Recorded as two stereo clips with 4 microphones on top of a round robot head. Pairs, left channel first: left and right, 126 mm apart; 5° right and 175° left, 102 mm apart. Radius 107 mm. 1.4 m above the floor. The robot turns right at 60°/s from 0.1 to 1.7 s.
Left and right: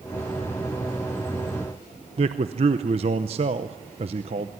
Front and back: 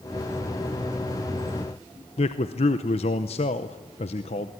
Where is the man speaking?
40° right, 0.7 m.